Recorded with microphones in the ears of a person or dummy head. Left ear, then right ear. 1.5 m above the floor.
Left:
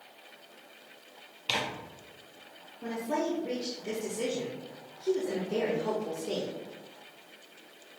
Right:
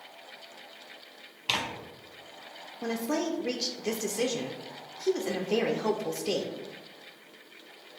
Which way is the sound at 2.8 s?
80° right.